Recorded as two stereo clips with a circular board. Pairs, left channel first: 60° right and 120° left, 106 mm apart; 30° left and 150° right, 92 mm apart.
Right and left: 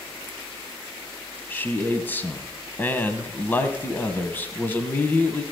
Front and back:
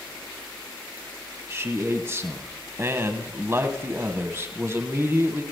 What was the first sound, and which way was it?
A man speaking, 115° right.